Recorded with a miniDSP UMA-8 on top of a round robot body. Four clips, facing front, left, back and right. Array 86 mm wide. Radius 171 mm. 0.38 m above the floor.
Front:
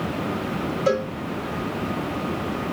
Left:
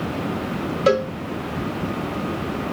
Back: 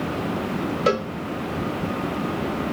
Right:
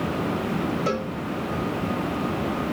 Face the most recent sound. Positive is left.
turn(degrees=125)